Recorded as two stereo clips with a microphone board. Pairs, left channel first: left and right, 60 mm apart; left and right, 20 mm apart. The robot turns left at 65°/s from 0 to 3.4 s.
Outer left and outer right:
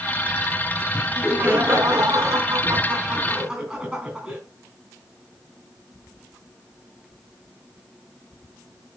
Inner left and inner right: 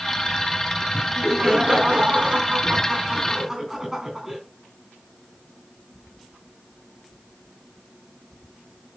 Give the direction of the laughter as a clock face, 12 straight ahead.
12 o'clock.